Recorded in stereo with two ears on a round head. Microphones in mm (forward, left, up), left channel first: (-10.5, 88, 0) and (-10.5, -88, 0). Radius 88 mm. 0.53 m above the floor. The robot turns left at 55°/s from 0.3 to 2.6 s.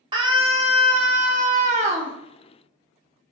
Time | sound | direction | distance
0.1 | a scream | 35° right | 0.8 m